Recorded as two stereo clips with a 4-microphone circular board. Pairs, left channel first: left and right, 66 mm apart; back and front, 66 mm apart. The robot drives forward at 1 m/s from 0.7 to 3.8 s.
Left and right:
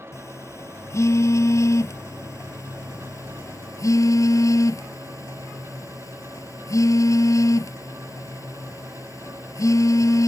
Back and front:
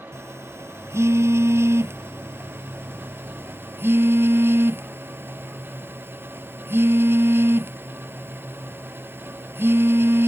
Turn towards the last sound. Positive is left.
turn(degrees=55)